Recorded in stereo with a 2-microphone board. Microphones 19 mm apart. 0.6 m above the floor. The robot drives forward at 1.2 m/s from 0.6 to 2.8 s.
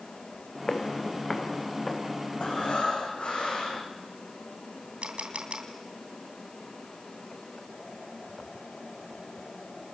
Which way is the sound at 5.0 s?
80° right.